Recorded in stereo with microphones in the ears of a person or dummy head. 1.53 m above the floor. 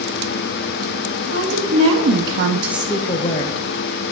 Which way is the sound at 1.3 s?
75° right (ahead or behind).